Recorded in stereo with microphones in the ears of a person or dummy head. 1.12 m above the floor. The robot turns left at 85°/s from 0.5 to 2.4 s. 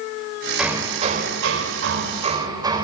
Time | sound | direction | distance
0.6 | hammering | 5° right | 3.5 m